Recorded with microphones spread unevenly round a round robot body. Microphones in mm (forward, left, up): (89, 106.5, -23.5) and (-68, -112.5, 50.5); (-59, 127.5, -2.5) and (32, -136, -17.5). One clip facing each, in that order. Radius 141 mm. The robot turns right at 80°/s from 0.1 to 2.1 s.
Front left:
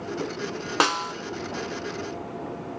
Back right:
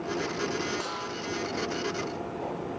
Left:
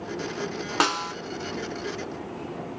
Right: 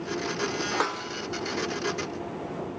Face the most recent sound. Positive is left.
turn(degrees=170)